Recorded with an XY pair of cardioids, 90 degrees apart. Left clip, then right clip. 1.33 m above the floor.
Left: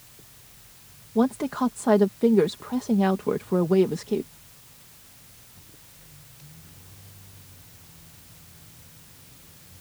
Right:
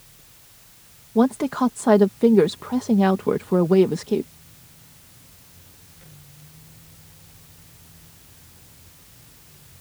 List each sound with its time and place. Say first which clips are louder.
1.1 s a woman speaking: right 4 dB; 30° right